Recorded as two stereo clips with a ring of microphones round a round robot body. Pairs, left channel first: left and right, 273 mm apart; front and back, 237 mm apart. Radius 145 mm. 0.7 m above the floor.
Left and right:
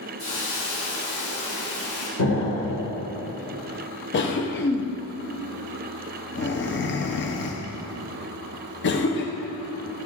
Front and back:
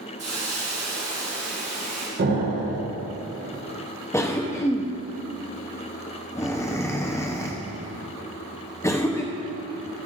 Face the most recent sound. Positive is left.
turn(degrees=75)